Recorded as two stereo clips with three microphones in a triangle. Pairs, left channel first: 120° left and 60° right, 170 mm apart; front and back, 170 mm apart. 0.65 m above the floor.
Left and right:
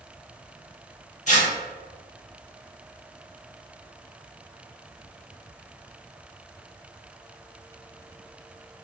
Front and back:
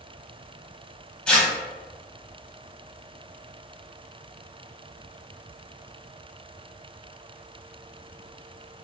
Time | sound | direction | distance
1.3 | tearing paper | 80° left | 0.7 m